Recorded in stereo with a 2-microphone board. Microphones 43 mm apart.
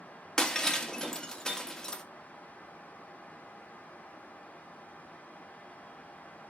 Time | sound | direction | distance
0.4 | breaking glass | 10° left (ahead or behind) | 1.4 m